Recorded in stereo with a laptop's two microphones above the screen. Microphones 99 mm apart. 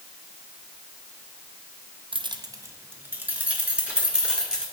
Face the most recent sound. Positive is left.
turn(degrees=-5)  # may be behind; listen again after turning